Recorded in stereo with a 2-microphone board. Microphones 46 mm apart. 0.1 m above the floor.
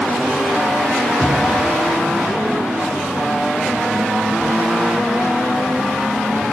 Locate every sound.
1.2 s knocking: centre (ahead or behind), 5.5 m